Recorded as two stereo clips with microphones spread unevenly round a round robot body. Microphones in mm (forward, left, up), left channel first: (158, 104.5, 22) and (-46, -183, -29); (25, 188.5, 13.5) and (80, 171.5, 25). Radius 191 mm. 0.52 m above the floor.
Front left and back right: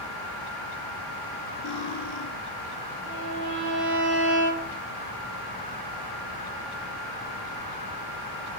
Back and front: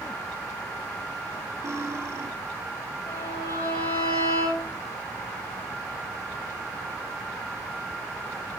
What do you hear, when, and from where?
1.6 s cutlery clinking: 20° left, 8.5 m
3.1 s a violin: 170° left, 9.5 m